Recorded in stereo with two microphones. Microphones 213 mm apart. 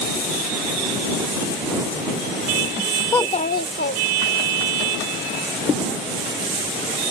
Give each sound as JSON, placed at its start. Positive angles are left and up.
{"t": 3.1, "sound": "a child speaking", "side_deg": 10}